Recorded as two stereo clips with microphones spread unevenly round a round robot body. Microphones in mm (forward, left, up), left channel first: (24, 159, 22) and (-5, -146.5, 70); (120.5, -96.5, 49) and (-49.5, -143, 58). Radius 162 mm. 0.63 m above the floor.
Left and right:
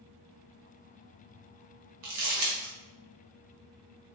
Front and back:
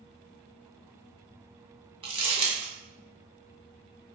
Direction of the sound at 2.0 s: 105° right.